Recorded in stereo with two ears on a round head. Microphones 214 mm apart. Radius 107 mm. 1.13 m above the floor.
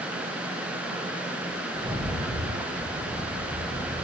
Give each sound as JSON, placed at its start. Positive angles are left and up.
{"t": 1.7, "sound": "a rattle", "side_deg": -15, "distance_m": 6.5}